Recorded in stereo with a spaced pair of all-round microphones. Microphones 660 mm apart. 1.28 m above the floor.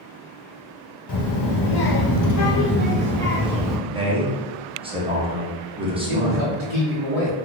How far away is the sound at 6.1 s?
About 1.1 m.